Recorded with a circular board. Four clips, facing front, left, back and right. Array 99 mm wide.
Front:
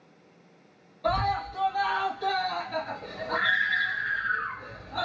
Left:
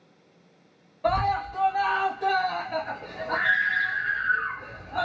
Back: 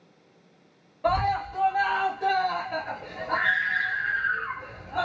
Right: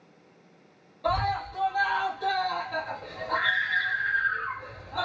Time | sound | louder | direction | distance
1.0 | a scream | left 3 dB, back 2 dB | 140° left | 1.7 m